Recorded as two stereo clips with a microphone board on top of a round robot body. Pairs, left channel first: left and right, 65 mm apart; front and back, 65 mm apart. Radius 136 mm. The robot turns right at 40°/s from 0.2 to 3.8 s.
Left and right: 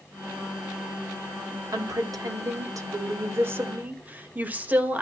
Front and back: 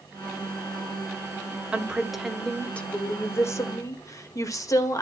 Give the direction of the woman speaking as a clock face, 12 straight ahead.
4 o'clock.